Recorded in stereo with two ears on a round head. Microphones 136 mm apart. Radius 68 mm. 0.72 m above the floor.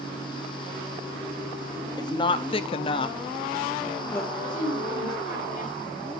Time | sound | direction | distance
2.0 | a woman speaking | 25° left (ahead or behind) | 0.9 m
4.3 | a woman speaking | 50° left (ahead or behind) | 4.5 m